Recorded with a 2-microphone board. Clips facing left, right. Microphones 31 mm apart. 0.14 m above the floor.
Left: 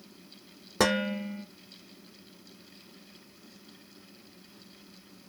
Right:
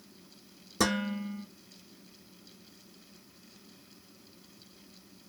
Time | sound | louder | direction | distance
0.8 | dishes clattering | left 3 dB | 30° left (ahead or behind) | 1.4 m